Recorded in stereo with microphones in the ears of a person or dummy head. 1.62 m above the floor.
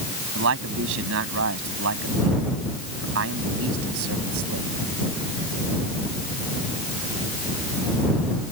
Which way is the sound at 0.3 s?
75° right (ahead or behind).